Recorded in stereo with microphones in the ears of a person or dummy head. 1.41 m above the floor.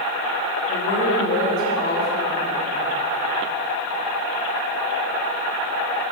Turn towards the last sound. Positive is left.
turn(degrees=0)  # may be behind; listen again after turning